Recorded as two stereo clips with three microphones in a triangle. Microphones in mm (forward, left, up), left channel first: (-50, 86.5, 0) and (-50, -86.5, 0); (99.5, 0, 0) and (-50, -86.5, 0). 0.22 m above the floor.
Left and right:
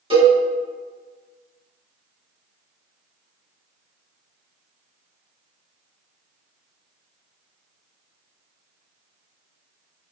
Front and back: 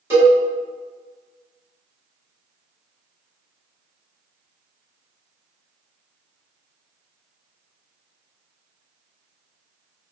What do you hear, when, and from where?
0.1 s a cowbell: 85° right, 1.6 m